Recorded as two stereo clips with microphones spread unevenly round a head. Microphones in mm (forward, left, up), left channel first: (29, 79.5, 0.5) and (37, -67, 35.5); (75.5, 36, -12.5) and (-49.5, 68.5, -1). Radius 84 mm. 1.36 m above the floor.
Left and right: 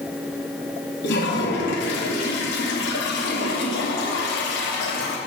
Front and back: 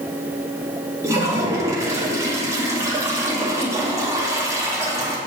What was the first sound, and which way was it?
A toilet flushing, 100° left.